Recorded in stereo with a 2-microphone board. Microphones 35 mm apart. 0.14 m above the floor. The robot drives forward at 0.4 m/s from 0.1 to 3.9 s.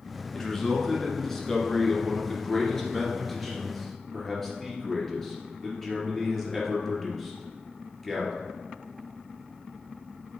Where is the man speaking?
10° left (ahead or behind), 1.7 m; by 8.3 s 5° left (ahead or behind), 3 m.